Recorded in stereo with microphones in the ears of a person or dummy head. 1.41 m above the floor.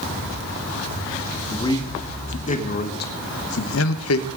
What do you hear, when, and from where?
1.5 s a man speaking: 20° left (ahead or behind), 2 m; by 4.3 s 85° left, 1.3 m